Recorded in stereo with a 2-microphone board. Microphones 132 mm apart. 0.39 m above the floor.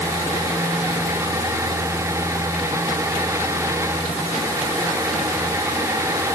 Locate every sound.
Only background noise.